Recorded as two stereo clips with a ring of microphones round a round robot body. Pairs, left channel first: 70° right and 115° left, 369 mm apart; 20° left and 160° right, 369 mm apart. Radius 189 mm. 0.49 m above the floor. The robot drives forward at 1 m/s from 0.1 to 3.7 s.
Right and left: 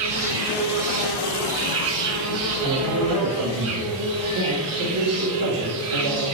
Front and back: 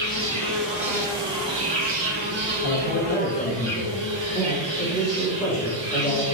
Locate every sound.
0.0 s an insect: 100° left, 2.5 m; by 6.3 s 150° left, 4.5 m
2.6 s a man speaking: 60° left, 1.7 m; by 6.2 s 105° left, 1.5 m